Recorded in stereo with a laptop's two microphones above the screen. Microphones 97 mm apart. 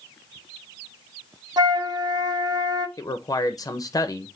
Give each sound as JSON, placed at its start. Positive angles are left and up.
{"t": 1.6, "sound": "a flute", "side_deg": -45, "distance_m": 0.9}
{"t": 3.0, "sound": "a man speaking", "side_deg": 40, "distance_m": 0.7}